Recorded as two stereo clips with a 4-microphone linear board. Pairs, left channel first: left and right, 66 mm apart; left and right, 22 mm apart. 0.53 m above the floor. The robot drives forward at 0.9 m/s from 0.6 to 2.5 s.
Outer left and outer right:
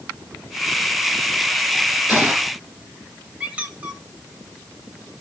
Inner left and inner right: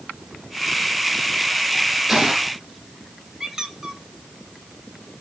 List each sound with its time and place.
2.1 s a gunshot: 30° right (ahead or behind), 8 m; by 2.5 s 25° right (ahead or behind), 8.5 m
3.4 s a squeak: 20° right (ahead or behind), 1.9 m